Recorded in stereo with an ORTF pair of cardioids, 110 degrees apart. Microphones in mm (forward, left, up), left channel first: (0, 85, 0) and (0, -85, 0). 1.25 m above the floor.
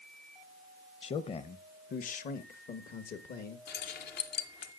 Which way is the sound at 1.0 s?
35° left.